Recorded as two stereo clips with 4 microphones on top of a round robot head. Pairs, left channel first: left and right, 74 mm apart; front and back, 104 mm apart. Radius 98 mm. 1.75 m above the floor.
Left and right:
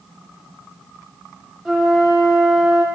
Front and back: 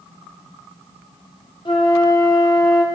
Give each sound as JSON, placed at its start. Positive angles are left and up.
{"t": 1.6, "sound": "a flute", "azimuth_deg": -5, "distance_m": 0.8}